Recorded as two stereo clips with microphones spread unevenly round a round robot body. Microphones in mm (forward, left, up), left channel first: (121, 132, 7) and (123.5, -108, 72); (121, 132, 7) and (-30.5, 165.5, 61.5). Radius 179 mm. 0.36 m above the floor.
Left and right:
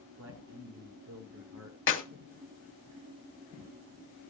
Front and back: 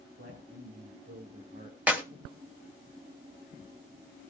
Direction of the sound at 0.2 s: 135° right.